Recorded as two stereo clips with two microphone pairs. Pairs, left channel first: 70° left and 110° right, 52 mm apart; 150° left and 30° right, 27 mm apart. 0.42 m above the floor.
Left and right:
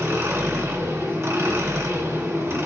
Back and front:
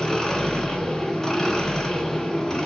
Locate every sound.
0.0 s an engine running: 140° right, 1.2 m